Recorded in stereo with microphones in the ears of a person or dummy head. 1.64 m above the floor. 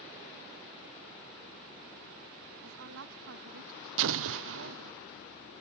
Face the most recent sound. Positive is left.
turn(degrees=-65)  # may be behind; listen again after turning